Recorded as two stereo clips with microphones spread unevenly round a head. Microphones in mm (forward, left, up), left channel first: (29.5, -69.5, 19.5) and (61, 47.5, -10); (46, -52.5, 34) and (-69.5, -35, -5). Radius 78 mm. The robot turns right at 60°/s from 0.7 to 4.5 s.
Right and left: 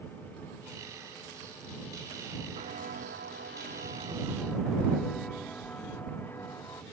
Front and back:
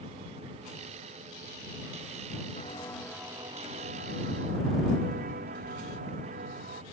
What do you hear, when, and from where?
2.6 s footsteps: 40° left; by 6.8 s straight behind